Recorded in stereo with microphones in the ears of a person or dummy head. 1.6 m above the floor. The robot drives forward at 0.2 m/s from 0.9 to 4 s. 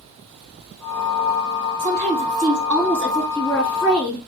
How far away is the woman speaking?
About 1.7 m.